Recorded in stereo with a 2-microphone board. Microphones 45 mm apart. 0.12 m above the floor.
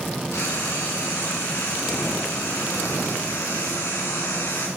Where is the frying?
85° left, 5 m.